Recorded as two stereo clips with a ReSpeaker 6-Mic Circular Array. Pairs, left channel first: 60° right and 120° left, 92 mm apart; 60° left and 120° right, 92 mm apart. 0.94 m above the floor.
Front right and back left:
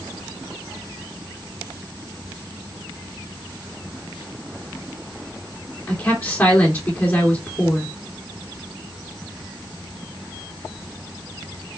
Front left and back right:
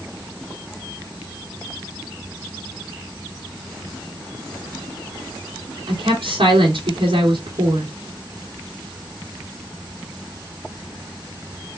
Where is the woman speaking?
130° right, 2.0 m.